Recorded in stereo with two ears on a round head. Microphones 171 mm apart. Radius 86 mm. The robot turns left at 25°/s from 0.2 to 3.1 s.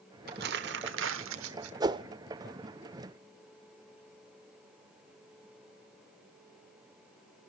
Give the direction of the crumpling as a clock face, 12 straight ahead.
2 o'clock.